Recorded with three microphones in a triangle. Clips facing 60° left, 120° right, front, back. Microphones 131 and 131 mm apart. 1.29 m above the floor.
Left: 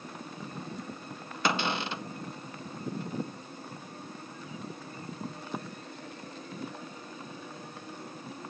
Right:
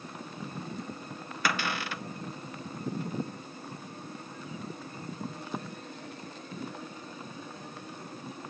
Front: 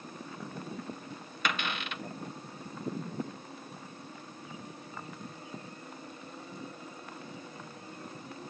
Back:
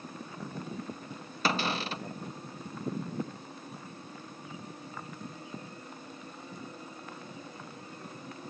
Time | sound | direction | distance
1.4 | a cupboard door | 125° left | ?